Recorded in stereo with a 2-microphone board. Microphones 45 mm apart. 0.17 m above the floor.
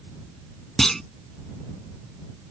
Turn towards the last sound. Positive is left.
turn(degrees=10)  # may be behind; listen again after turning